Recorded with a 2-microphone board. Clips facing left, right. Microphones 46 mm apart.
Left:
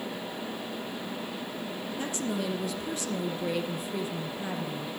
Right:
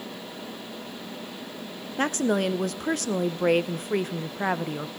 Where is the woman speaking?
60° right (ahead or behind), 0.7 m.